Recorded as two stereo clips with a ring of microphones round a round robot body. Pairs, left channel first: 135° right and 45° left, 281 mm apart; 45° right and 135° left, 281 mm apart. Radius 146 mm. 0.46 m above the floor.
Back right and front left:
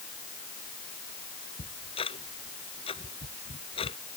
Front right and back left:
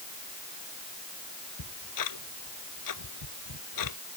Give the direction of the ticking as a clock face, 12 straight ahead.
2 o'clock.